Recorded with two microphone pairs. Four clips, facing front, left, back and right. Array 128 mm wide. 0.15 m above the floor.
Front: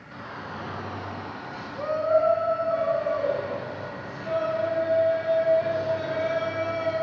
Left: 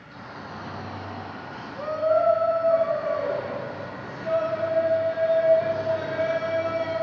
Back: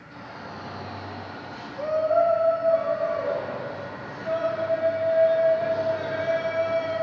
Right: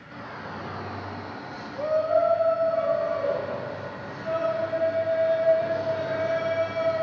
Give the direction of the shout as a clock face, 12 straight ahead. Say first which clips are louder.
Right 2 dB, front 2 dB; 1 o'clock.